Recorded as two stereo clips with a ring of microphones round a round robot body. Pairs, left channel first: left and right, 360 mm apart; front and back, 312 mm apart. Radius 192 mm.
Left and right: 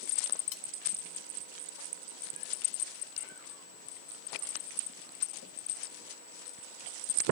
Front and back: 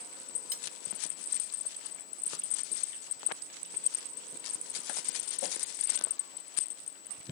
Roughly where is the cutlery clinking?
Behind left.